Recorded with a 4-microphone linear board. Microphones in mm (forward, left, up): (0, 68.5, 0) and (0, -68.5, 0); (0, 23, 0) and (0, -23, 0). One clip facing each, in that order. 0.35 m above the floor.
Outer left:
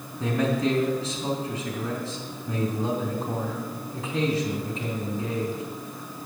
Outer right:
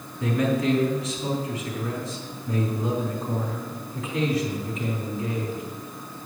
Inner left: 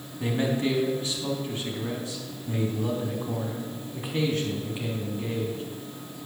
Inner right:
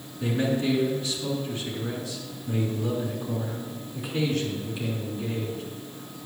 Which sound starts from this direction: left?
A man speaking, at 0.2 s.